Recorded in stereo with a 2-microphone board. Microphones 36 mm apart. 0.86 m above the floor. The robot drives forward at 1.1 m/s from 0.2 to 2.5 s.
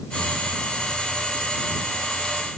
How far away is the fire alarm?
I don't hear a fire alarm.